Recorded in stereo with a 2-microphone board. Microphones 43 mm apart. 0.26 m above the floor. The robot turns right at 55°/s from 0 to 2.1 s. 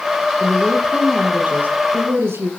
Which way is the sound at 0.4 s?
160° left.